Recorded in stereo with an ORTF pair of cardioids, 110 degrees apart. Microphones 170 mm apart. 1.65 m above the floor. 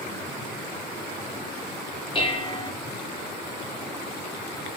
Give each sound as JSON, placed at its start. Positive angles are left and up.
{"t": 2.1, "sound": "dishes clattering", "azimuth_deg": 30, "distance_m": 3.5}